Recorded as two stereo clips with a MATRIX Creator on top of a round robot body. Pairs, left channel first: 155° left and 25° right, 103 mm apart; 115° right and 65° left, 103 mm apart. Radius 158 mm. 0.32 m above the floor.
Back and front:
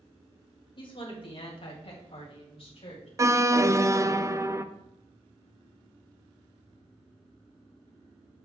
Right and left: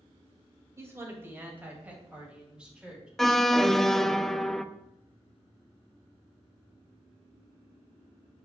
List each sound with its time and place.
0.8 s a woman speaking: 130° left, 2.5 m; by 3.1 s 150° left, 3.5 m
3.2 s an alarm: 30° right, 0.6 m